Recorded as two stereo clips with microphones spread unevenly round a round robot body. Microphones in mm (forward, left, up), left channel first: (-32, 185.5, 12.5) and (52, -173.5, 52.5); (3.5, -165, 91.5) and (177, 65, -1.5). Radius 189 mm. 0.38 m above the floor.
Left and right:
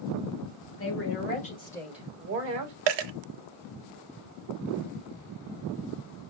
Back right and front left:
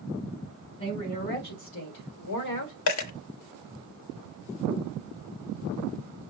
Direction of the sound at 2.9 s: 95° right.